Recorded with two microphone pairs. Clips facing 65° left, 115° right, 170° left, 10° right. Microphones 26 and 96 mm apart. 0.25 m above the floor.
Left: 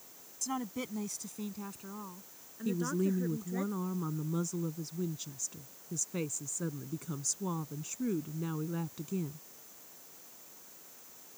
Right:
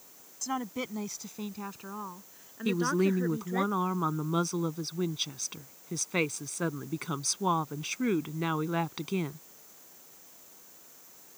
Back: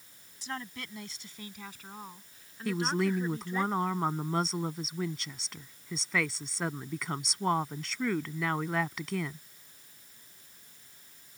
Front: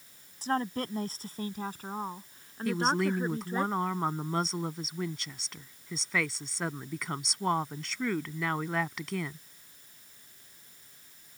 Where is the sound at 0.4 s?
45° right; by 3.6 s 60° right.